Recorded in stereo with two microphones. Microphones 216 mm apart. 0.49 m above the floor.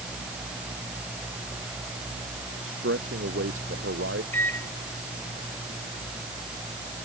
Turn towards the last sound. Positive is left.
turn(degrees=10)  # may be behind; listen again after turning